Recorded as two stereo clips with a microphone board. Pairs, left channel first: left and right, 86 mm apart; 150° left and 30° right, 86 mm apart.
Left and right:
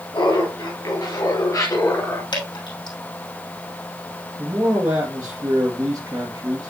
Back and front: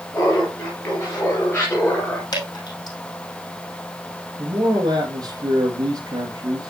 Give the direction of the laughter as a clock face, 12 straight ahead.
9 o'clock.